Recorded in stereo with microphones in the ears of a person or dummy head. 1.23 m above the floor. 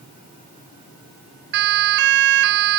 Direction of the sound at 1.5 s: 60° right (ahead or behind).